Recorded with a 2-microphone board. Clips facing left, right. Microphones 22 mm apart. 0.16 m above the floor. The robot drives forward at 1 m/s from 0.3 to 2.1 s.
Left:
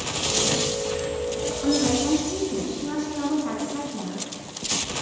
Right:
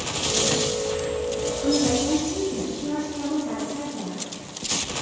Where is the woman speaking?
30° left (ahead or behind), 2.5 m; by 4.3 s 35° left (ahead or behind), 2 m.